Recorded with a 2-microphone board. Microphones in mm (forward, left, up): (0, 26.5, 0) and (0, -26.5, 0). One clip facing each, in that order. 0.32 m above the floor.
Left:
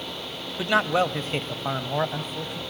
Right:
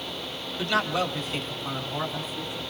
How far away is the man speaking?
About 1.2 m.